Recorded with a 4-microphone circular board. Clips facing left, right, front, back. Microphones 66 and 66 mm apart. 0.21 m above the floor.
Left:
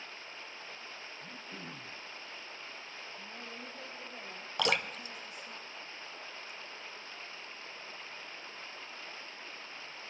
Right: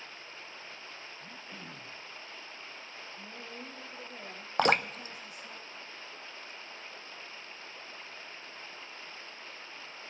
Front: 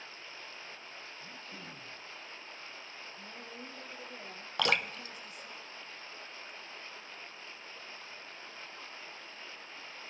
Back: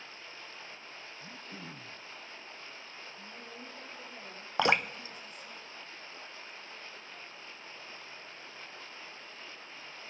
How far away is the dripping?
About 0.6 m.